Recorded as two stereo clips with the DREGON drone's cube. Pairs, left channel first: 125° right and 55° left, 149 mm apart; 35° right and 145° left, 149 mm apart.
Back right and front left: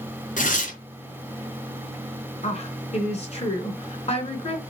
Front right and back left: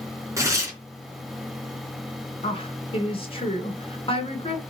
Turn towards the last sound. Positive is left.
turn(degrees=-80)